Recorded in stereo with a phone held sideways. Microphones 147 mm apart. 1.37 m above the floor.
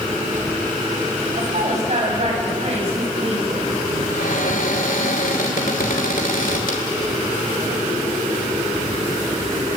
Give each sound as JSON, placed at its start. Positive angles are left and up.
{"t": 1.4, "sound": "a woman speaking", "side_deg": -55, "distance_m": 7.0}
{"t": 4.1, "sound": "a cupboard door", "side_deg": 75, "distance_m": 3.0}